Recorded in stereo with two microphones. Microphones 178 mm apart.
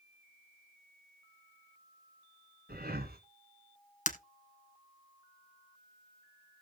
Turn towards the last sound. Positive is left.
turn(degrees=45)  # may be behind; listen again after turning